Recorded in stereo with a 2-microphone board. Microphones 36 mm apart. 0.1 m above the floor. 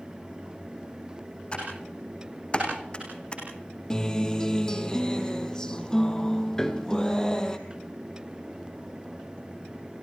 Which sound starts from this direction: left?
Typing on a keyboard, at 1.5 s.